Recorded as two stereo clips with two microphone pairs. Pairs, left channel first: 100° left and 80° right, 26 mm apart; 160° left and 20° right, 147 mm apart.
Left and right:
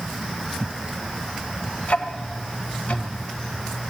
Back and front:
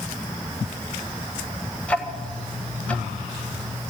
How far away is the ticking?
About 1.6 m.